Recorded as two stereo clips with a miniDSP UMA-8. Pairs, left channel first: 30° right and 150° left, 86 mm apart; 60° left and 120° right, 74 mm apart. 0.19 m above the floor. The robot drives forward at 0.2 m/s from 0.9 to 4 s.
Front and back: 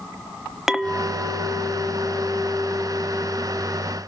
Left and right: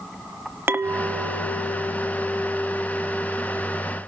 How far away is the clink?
About 0.7 m.